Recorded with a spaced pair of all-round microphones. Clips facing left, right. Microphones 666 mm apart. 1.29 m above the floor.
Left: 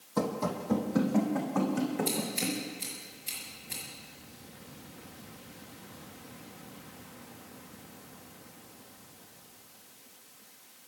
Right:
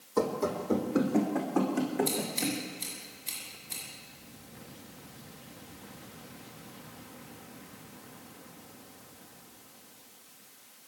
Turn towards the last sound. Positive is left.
turn(degrees=50)  # may be behind; listen again after turning